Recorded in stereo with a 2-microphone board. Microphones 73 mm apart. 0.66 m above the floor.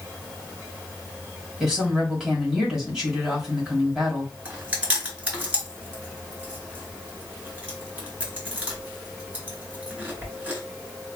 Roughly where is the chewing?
Right.